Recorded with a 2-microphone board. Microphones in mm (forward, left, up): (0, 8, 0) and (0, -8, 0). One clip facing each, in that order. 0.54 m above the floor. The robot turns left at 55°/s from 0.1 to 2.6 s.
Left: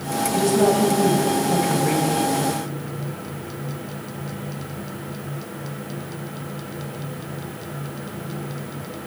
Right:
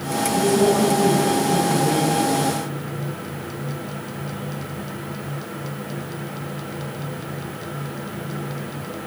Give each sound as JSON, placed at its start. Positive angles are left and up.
{"t": 0.3, "sound": "a woman speaking", "azimuth_deg": 155, "distance_m": 3.0}